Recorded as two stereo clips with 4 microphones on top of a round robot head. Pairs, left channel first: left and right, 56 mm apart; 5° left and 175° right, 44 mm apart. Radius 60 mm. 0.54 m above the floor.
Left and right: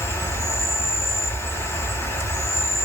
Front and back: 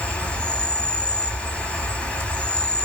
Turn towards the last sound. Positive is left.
turn(degrees=65)